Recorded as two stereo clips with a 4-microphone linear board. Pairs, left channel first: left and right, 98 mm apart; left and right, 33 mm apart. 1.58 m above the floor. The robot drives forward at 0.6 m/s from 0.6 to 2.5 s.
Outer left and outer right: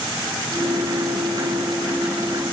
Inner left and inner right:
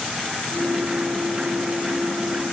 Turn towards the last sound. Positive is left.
No sound to turn to.